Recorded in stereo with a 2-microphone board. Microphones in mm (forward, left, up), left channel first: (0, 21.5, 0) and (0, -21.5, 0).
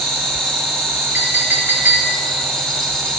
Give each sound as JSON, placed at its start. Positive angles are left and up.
{"t": 0.0, "sound": "an insect", "side_deg": 5, "distance_m": 3.5}
{"t": 1.1, "sound": "a clink", "side_deg": -50, "distance_m": 3.5}